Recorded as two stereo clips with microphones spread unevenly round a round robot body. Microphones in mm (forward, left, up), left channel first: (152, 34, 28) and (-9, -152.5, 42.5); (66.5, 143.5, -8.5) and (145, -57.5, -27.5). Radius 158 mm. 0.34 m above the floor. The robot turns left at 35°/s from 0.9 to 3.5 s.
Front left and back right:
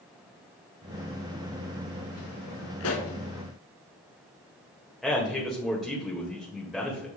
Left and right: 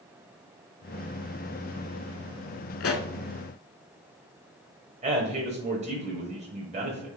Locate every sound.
2.8 s a pop: 95° left, 0.9 m; by 3.1 s 85° left, 0.9 m
5.0 s a man speaking: 40° right, 1.7 m